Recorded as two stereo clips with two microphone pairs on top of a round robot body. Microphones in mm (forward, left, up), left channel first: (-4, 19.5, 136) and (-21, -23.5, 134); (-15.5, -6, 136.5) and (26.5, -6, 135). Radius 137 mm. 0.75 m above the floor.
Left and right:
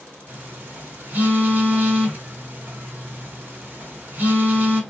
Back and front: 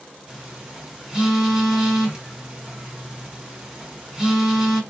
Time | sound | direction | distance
0.3 | a phone buzzing | 65° right | 1.7 m